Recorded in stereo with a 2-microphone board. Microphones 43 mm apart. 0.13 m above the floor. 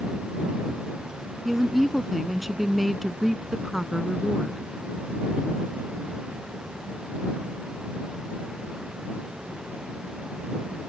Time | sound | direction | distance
1.4 | a woman speaking | 5° right (ahead or behind) | ?